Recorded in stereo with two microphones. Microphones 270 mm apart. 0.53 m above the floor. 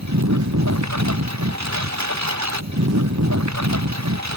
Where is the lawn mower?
85° right.